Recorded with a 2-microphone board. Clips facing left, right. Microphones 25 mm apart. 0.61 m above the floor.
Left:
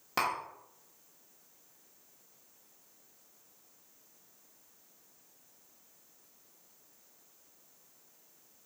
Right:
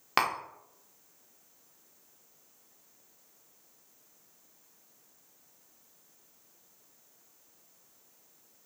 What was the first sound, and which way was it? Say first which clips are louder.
Tapping: right 4 dB; 50° right (ahead or behind).